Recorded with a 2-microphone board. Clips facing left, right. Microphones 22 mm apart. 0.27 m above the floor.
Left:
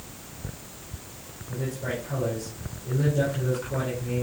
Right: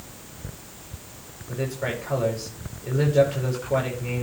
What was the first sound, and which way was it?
A man speaking, 75° right (ahead or behind).